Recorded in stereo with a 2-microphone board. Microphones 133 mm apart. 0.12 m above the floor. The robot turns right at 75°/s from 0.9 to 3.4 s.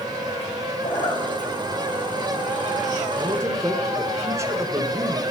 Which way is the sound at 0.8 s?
55° left (ahead or behind).